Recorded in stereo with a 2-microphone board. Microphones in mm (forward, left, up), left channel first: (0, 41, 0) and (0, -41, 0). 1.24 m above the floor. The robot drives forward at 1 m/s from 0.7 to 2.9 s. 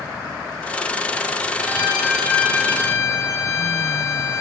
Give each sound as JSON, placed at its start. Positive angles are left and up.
{"t": 1.6, "sound": "a violin", "side_deg": 40, "distance_m": 4.5}